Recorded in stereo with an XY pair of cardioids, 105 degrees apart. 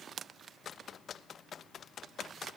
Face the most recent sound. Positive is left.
No sound to turn to.